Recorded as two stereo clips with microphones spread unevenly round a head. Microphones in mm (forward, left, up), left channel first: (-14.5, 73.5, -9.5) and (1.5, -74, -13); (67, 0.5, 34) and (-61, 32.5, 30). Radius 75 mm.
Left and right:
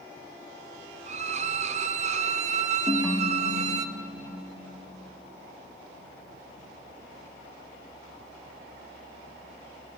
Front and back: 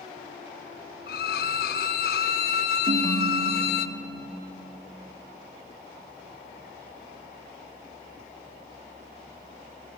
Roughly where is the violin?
Ahead right.